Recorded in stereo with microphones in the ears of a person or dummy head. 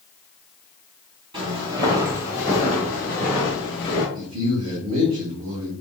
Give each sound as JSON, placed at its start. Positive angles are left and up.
{"t": 1.3, "sound": "footsteps", "side_deg": -30, "distance_m": 2.0}
{"t": 4.2, "sound": "a man speaking", "side_deg": -85, "distance_m": 1.3}